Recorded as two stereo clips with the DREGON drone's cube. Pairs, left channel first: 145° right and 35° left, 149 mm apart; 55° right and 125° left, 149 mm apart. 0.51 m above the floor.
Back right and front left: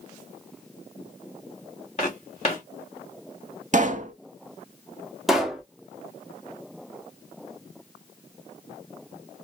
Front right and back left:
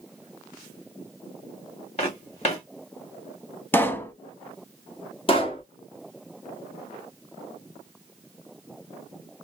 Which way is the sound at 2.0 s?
100° right.